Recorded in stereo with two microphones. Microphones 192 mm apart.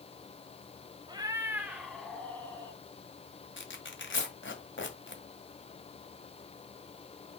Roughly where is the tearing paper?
Left.